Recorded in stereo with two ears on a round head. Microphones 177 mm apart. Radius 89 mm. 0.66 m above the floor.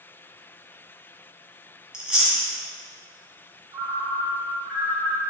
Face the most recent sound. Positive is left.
turn(degrees=-15)  # may be behind; listen again after turning